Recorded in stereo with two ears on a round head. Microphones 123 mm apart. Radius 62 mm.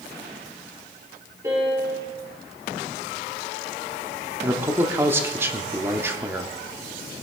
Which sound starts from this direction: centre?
A man speaking, at 4.4 s.